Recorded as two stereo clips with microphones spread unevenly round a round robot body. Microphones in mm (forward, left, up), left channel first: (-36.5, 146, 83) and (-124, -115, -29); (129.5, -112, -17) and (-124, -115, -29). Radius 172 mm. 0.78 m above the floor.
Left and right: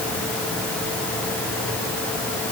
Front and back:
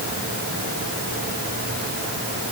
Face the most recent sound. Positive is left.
No sound to turn to.